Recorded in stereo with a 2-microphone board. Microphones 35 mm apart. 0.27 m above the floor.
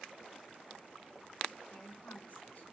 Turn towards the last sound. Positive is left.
turn(degrees=40)  # may be behind; listen again after turning